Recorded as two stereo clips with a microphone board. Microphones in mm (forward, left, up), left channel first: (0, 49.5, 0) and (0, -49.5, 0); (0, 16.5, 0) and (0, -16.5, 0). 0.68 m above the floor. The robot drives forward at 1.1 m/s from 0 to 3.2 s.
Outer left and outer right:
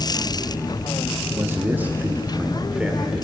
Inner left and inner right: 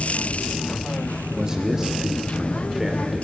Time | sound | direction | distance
1.3 | a man speaking | 25° right (ahead or behind) | 1.2 m